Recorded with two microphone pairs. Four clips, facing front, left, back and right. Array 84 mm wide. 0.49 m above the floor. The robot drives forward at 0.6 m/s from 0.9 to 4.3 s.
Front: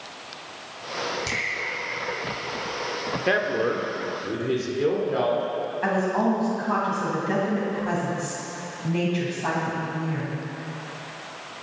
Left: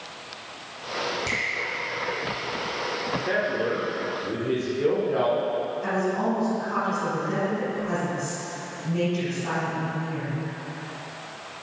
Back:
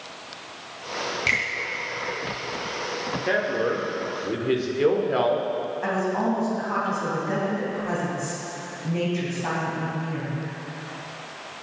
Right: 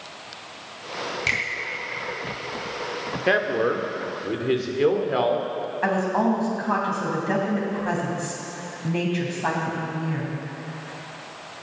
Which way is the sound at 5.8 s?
90° right.